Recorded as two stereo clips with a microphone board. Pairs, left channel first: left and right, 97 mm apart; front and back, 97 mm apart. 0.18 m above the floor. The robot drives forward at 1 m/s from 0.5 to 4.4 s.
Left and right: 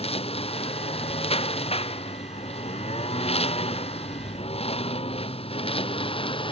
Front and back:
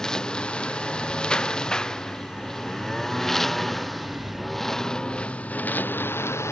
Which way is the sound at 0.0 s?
85° left.